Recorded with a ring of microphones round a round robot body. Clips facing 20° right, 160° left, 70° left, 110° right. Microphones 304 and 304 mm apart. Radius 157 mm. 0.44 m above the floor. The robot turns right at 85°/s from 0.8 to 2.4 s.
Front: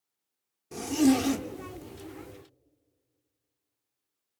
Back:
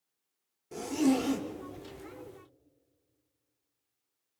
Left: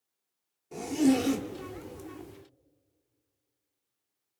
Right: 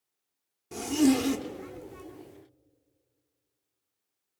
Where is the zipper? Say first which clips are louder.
Front 4 dB, right 1 dB; 80° right, 1.3 m; by 2.0 s 30° left, 1.3 m.